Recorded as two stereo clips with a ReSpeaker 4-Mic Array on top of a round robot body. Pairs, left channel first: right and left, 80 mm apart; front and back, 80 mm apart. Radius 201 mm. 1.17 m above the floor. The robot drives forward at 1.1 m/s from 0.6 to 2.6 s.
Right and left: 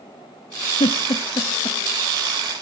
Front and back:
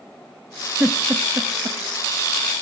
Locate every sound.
0.8 s a giggle: 105° right, 1.7 m; by 1.8 s 135° right, 2 m